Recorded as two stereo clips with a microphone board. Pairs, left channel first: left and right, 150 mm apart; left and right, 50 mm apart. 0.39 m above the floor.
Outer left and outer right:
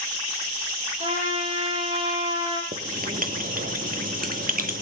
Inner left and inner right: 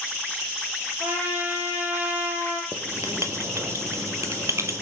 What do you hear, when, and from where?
1.0 s a trumpet: 40° right (ahead or behind), 7.5 m
2.7 s writing: 70° right (ahead or behind), 1.3 m